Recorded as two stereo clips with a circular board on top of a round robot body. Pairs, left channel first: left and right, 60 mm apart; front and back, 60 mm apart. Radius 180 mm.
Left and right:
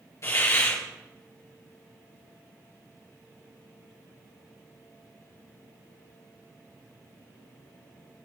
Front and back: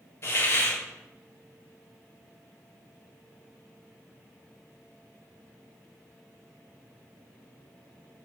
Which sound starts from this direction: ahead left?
A hiss, at 0.2 s.